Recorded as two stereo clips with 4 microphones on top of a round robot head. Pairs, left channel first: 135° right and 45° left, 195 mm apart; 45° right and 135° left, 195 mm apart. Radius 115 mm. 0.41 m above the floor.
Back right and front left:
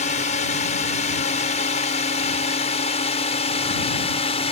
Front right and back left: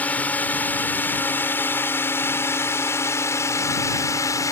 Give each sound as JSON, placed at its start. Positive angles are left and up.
{"t": 0.0, "sound": "a drone", "azimuth_deg": -120}